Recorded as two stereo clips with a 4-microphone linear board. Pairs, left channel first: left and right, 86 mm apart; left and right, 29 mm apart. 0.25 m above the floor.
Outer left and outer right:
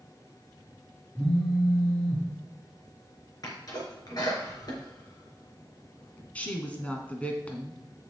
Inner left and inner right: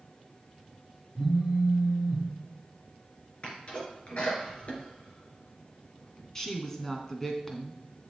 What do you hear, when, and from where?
1.1 s a phone buzzing: 20° left (ahead or behind), 3 m
3.4 s a sneeze: 50° left (ahead or behind), 4 m
6.3 s a woman speaking: 15° left (ahead or behind), 1.9 m